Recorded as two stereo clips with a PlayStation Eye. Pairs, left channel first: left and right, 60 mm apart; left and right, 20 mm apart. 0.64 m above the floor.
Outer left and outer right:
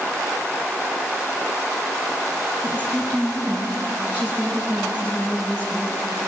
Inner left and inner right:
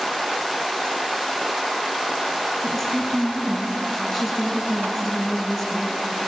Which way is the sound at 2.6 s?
20° right (ahead or behind).